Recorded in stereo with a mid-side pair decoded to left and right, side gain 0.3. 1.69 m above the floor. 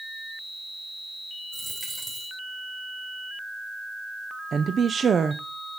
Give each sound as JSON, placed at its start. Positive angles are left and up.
{"t": 1.5, "sound": "a dropped coin", "azimuth_deg": -40, "distance_m": 3.5}
{"t": 4.5, "sound": "a woman speaking", "azimuth_deg": -60, "distance_m": 0.6}